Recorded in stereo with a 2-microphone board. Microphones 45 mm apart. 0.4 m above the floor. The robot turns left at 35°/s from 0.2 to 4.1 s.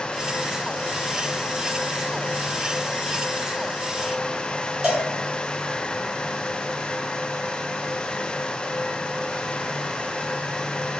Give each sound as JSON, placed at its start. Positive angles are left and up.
{"t": 4.8, "sound": "a cowbell", "side_deg": -20, "distance_m": 1.3}